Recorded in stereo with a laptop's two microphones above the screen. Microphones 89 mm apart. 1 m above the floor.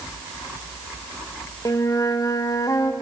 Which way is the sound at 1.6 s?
40° left (ahead or behind).